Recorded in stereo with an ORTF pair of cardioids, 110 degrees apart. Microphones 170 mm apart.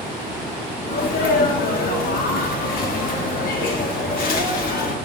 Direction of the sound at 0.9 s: 65° left.